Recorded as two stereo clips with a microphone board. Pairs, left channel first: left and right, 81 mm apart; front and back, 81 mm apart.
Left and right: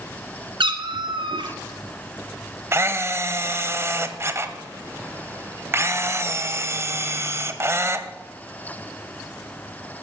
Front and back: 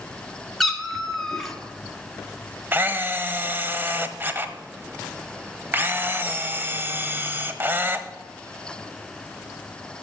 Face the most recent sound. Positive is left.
turn(degrees=-130)